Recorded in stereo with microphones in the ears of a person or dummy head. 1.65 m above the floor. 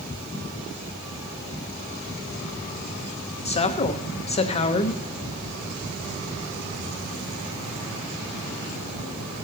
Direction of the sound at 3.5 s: 35° left (ahead or behind).